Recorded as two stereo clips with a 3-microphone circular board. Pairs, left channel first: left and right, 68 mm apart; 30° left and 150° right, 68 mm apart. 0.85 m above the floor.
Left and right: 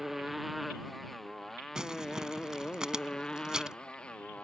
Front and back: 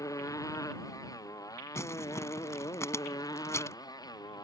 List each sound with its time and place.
0.0 s a motorcycle: 5° right; by 4.4 s 15° left
1.8 s crumpling: 10° right